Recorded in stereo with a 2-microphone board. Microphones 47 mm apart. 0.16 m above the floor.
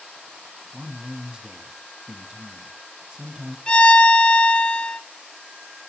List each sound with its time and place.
0.7 s a man speaking: 15° right (ahead or behind), 1.4 m
3.7 s a violin: 20° left (ahead or behind), 1.1 m